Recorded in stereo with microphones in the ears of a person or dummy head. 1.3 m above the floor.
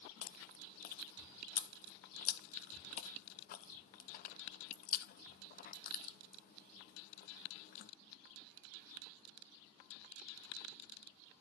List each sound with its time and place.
0.2 s chewing: 50° left (ahead or behind), 0.8 m